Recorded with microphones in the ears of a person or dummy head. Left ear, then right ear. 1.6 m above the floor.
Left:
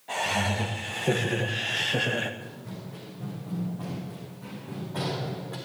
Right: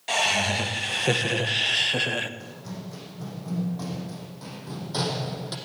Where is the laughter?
75° right (ahead or behind), 2.5 m; by 2.3 s 10° right (ahead or behind), 1.0 m.